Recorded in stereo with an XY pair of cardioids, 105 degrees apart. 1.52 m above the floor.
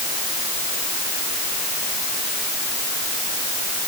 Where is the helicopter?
No helicopter in this recording.